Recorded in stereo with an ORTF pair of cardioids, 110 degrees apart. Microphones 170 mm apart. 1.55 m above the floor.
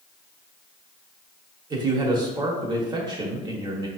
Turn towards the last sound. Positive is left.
turn(degrees=-25)